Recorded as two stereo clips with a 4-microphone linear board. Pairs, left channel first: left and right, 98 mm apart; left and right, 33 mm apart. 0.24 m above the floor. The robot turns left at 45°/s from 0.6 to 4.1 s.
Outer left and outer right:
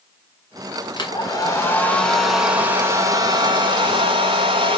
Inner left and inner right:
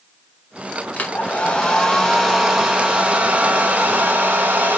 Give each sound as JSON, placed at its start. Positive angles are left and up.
{"t": 1.0, "sound": "a hair dryer", "azimuth_deg": 60, "distance_m": 1.2}